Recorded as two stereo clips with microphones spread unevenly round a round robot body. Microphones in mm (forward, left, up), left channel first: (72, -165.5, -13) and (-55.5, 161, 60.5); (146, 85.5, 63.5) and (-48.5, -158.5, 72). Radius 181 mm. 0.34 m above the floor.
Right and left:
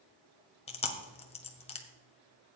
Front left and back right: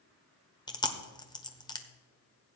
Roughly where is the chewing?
Ahead.